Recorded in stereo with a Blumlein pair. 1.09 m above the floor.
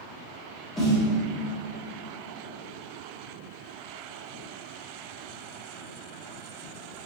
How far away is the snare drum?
About 1.0 m.